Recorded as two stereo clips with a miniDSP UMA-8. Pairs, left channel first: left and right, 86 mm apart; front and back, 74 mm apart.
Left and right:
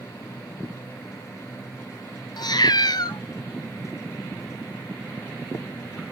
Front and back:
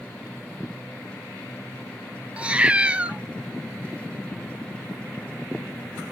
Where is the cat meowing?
110° left, 0.6 m.